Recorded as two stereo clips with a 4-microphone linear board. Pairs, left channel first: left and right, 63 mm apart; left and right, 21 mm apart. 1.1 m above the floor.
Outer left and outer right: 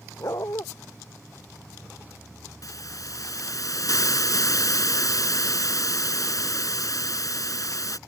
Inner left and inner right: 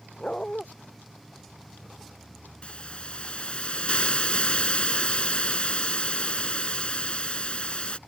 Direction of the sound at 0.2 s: 65° left (ahead or behind).